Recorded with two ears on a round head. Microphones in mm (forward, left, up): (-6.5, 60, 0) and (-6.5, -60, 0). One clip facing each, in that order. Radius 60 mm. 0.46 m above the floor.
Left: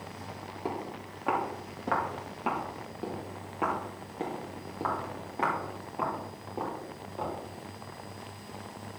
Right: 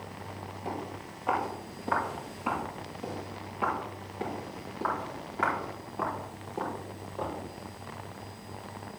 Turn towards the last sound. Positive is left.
turn(degrees=5)  # may be behind; listen again after turning